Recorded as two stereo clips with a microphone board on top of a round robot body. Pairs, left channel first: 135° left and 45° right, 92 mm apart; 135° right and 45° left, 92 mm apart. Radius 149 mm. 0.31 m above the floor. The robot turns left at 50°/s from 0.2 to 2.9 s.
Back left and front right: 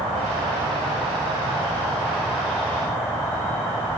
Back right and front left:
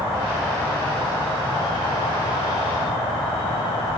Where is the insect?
25° right, 0.8 m; by 4.0 s 160° right, 0.8 m.